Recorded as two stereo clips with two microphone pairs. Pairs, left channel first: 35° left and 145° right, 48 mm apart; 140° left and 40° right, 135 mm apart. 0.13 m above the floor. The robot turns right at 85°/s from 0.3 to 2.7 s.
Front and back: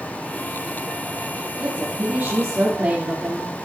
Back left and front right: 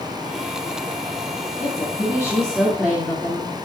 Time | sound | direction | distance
1.6 | a woman speaking | 145° left | 2 m